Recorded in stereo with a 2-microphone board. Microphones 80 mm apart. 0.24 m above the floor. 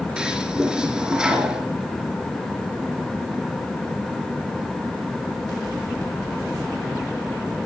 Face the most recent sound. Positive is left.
turn(degrees=-10)  # may be behind; listen again after turning